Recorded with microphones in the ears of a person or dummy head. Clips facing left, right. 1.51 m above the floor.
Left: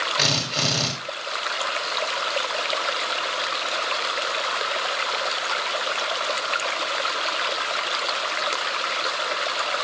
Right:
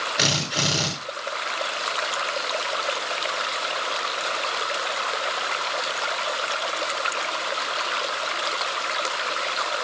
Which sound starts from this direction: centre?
A drill, at 0.2 s.